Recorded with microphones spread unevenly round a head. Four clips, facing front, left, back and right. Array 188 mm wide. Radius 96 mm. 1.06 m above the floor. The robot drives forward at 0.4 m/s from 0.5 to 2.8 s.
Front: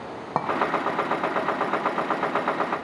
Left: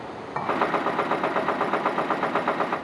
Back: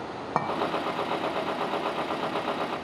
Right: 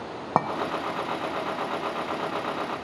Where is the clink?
80° right, 0.8 m.